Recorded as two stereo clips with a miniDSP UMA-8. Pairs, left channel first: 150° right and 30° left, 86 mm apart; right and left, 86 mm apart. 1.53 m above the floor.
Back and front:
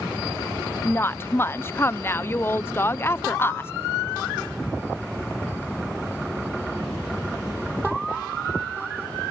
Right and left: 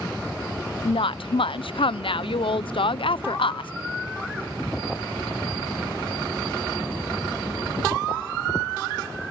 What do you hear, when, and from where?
0.8 s a woman speaking: 90° right, 0.5 m